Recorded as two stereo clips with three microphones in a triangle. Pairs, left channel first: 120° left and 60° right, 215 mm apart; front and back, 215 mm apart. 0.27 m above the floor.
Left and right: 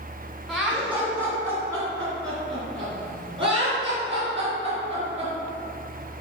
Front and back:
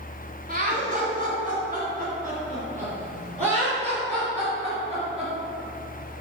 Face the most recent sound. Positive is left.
turn(degrees=-120)